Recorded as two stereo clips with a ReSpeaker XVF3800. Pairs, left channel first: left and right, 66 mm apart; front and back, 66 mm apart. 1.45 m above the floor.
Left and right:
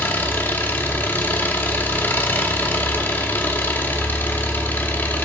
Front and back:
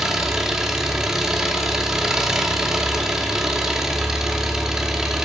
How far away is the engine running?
About 1.0 m.